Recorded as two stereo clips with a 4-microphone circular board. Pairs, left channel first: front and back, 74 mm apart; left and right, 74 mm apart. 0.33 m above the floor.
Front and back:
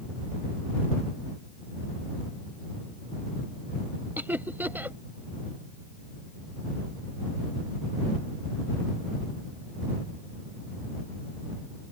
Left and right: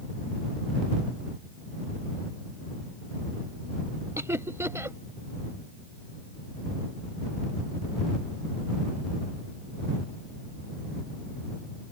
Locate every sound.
4.2 s laughter: 125° right